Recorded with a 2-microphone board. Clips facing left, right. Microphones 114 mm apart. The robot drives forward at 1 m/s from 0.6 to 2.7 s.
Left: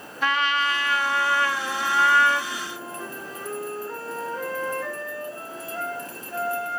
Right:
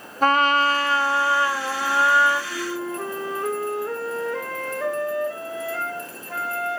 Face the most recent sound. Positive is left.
turn(degrees=-80)